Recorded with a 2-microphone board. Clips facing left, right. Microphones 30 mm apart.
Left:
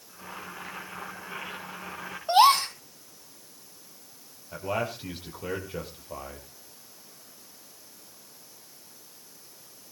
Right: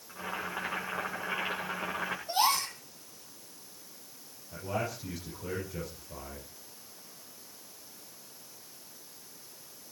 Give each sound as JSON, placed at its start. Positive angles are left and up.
{"t": 0.1, "sound": "boiling", "side_deg": -30, "distance_m": 9.0}
{"t": 2.3, "sound": "a gasp", "side_deg": 45, "distance_m": 1.2}
{"t": 4.5, "sound": "a man speaking", "side_deg": 45, "distance_m": 6.0}